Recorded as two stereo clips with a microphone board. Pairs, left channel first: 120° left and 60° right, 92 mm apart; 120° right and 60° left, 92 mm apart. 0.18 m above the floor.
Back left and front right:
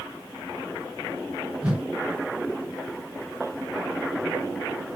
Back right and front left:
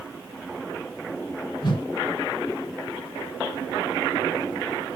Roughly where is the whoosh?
Behind right.